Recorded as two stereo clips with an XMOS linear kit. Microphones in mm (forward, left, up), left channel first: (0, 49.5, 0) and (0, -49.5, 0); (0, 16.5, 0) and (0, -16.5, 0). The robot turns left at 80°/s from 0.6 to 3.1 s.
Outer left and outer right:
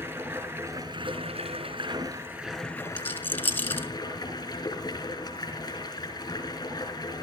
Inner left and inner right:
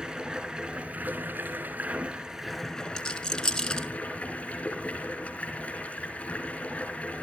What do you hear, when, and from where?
0.0 s running water: 20° right, 5 m; by 7.2 s 140° left, 5 m
3.0 s a rattle: 15° left (ahead or behind), 1.5 m; by 3.9 s 20° left (ahead or behind), 1.5 m